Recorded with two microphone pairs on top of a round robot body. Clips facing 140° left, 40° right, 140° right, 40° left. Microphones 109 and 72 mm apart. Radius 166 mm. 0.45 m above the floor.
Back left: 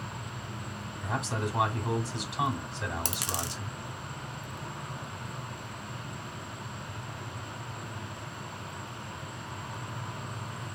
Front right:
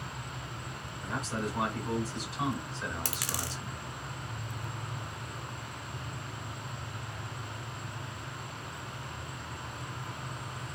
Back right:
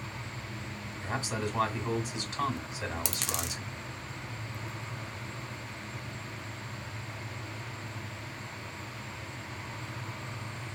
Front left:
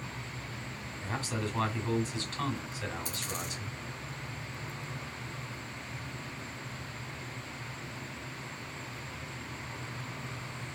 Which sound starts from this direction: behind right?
A dropped coin, at 3.0 s.